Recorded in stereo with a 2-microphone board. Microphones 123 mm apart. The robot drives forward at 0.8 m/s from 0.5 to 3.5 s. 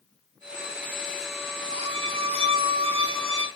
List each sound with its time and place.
1.7 s a violin: 50° right (ahead or behind), 2.5 m; by 3.5 s 40° right (ahead or behind), 2.5 m